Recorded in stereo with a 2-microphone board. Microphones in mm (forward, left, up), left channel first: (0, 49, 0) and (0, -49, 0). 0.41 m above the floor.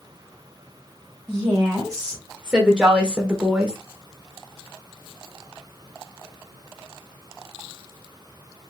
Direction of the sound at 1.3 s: 5° right (ahead or behind).